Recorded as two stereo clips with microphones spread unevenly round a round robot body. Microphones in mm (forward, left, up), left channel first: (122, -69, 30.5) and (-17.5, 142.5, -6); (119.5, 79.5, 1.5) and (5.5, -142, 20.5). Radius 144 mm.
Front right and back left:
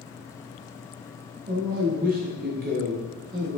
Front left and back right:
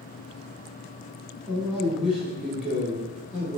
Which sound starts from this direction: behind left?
A man speaking, at 1.5 s.